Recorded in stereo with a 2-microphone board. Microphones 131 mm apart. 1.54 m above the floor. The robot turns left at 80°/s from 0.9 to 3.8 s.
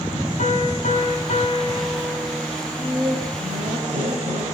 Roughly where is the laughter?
Ahead.